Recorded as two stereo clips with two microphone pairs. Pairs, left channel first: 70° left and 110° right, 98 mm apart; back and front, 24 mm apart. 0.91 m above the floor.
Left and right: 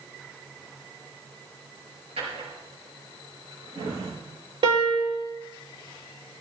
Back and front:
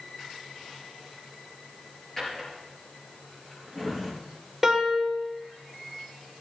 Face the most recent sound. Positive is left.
turn(degrees=-85)